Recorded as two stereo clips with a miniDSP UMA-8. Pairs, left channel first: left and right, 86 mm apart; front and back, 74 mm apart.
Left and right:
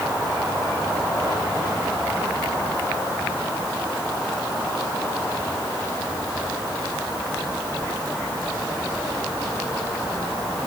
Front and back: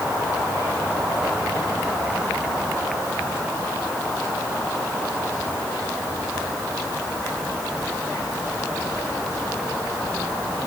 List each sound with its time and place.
Only background noise.